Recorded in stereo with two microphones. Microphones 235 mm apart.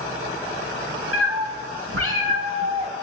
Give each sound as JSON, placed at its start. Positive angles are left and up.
{"t": 1.1, "sound": "a cat meowing", "side_deg": -75, "distance_m": 3.5}